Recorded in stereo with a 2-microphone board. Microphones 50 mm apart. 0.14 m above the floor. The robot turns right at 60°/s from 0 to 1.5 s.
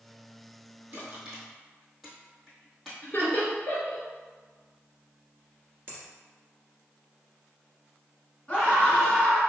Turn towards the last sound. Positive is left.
turn(degrees=25)  # may be behind; listen again after turning